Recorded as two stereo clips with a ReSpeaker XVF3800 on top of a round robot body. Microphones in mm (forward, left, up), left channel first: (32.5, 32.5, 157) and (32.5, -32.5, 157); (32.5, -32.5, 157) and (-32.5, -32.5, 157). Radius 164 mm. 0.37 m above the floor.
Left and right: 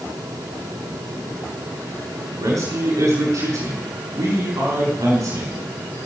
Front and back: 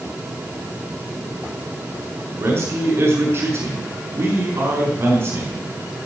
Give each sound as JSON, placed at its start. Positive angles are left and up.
{"t": 2.4, "sound": "a man speaking", "azimuth_deg": -130, "distance_m": 6.5}